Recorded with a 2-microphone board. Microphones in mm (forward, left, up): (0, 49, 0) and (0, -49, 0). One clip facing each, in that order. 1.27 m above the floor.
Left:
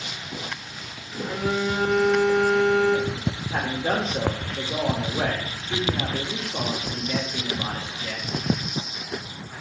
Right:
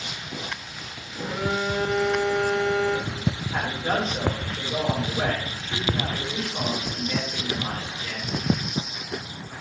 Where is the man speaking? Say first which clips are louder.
Left 2 dB; 75° left (ahead or behind), 2.5 m.